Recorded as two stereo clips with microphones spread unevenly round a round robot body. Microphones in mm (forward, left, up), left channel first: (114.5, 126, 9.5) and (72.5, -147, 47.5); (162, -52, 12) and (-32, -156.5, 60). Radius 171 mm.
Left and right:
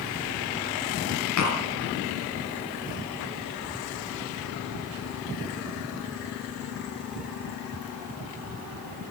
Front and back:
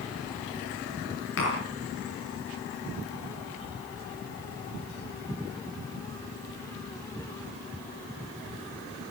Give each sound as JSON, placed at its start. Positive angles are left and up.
{"t": 1.4, "sound": "tapping", "azimuth_deg": 65, "distance_m": 7.0}